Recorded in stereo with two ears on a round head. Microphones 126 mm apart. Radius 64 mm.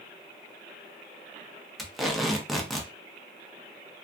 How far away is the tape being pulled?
About 0.6 m.